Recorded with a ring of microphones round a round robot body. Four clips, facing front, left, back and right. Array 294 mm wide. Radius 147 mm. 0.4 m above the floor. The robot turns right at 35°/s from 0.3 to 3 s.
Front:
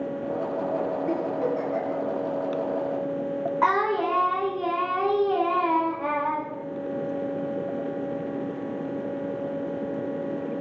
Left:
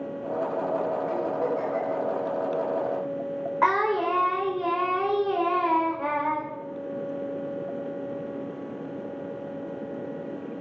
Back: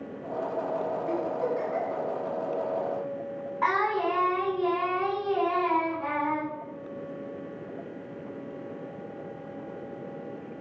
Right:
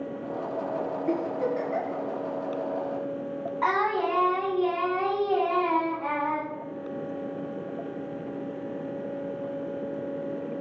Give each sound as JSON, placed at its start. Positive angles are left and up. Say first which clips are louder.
{"t": 1.1, "sound": "a giggle", "louder": "left 1 dB, front 1 dB", "azimuth_deg": -60, "distance_m": 5.0}
{"t": 3.6, "sound": "singing", "louder": "left 2 dB, front 2 dB", "azimuth_deg": 45, "distance_m": 4.5}